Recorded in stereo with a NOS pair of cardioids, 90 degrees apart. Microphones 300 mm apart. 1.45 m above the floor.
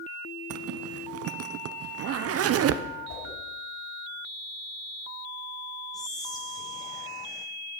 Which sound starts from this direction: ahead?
Whispering, at 5.9 s.